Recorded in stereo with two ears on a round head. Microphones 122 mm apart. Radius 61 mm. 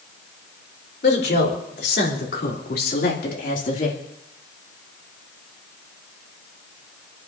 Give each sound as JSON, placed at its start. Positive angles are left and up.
{"t": 1.0, "sound": "a woman speaking", "side_deg": 80, "distance_m": 4.5}